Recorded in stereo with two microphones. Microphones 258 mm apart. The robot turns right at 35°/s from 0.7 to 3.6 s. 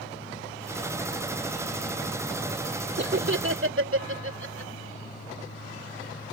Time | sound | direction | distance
3.0 | laughter | 45° right (ahead or behind) | ?